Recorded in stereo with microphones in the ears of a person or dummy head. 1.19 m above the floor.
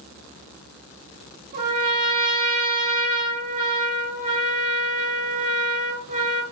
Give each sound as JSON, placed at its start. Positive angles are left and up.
{"t": 1.5, "sound": "a trumpet", "side_deg": -50, "distance_m": 1.6}